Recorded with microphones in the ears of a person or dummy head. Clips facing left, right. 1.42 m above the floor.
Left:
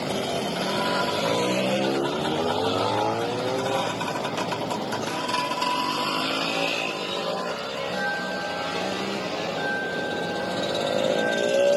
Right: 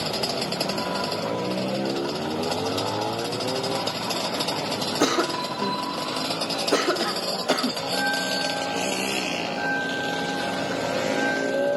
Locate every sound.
5.0 s a cough: 80° right
7.8 s a bell: 40° right (ahead or behind)